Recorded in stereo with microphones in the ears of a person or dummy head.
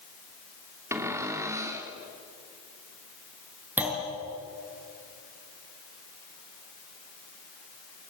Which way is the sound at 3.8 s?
10° right (ahead or behind).